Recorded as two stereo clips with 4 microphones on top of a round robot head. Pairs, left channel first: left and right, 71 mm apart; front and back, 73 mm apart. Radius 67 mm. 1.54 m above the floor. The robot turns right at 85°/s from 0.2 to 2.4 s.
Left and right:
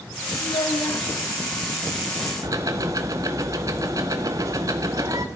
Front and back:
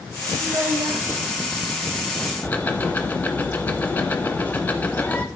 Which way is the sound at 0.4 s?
100° left.